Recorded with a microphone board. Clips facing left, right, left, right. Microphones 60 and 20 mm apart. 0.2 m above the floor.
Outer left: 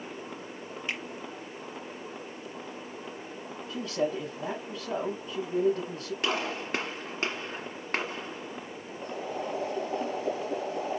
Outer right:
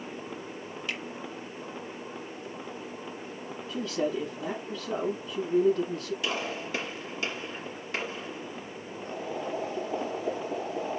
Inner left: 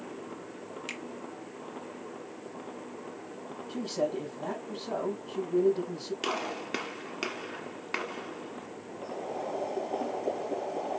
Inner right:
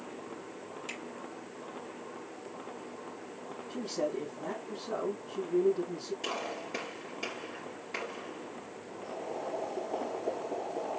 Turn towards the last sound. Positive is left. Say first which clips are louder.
# even, inner left 2 dB
turn(degrees=55)  # may be behind; listen again after turning